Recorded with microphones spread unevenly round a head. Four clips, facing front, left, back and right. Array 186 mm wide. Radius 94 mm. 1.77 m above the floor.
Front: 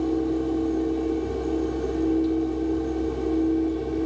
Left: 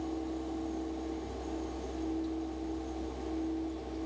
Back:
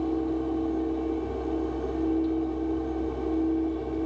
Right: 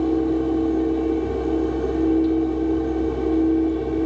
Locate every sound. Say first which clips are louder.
0.0 s a fan: right 17 dB, front 3 dB; 65° right